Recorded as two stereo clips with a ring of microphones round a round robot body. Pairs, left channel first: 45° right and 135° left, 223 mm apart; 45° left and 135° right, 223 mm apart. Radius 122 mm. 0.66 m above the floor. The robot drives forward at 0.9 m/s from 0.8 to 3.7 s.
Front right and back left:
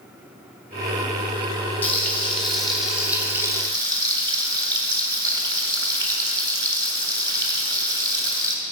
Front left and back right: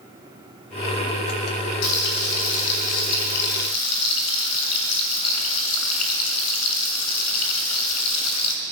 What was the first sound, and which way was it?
Frying, 35° left.